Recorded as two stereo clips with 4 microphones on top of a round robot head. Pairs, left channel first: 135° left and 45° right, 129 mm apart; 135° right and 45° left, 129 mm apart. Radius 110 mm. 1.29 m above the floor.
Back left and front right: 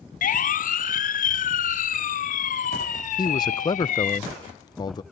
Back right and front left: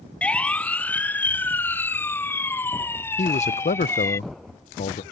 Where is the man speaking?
165° right.